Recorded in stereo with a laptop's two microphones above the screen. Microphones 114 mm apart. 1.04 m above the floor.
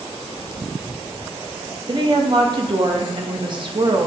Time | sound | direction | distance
1.9 | a woman speaking | 45° right (ahead or behind) | 1.4 m